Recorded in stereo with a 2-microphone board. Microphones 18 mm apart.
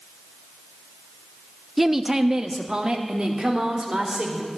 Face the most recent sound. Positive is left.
turn(degrees=-50)  # may be behind; listen again after turning